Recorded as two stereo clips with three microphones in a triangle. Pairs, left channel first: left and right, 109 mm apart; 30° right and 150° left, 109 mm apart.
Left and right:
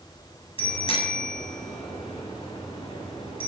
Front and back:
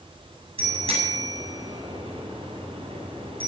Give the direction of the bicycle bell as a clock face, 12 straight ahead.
8 o'clock.